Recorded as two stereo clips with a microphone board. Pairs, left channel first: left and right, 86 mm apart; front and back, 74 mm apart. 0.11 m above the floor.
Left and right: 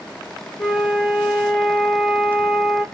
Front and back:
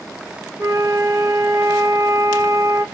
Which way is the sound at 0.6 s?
Straight behind.